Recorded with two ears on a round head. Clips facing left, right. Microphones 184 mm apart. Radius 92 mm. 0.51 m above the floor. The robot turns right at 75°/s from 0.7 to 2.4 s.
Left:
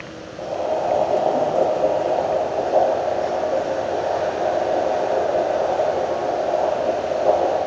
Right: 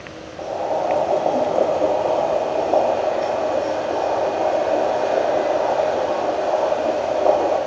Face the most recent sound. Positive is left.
turn(degrees=-85)